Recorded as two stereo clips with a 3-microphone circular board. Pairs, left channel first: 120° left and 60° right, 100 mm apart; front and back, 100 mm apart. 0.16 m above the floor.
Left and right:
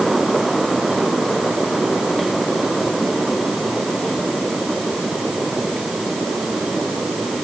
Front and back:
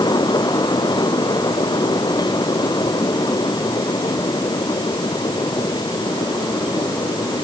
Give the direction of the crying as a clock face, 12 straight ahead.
I don't hear crying.